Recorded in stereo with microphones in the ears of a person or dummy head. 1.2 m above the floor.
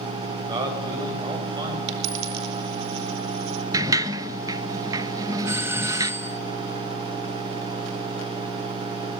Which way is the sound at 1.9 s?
65° right (ahead or behind).